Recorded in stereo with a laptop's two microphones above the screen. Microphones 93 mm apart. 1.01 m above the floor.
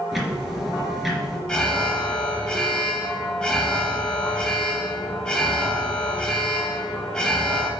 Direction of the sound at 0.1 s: Centre (ahead or behind).